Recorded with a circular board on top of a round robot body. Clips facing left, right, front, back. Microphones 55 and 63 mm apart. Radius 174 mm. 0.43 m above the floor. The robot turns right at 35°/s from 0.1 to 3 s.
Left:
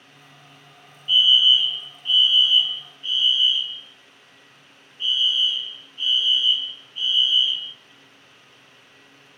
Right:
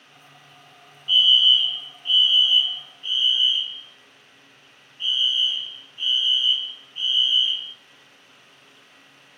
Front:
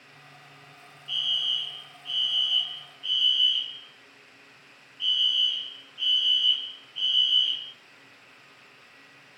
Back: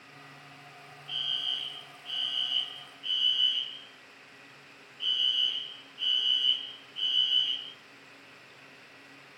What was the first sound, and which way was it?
A fire alarm, 155° left.